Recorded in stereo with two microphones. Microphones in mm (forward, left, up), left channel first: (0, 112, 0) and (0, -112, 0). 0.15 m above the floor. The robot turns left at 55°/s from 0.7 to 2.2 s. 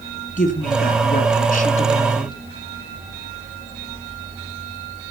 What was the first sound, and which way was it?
A woman speaking, 115° left.